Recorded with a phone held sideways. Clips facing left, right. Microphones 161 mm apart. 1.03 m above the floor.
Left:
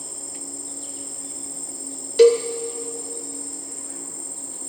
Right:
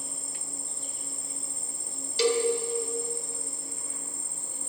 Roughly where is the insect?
Left.